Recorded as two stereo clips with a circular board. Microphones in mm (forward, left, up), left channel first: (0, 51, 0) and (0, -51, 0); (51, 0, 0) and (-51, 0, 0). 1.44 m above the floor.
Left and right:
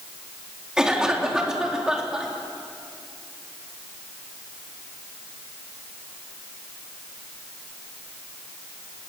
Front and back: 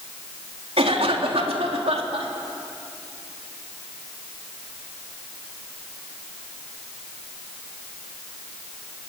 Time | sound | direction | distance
0.8 | a cough | 175° right | 3.5 m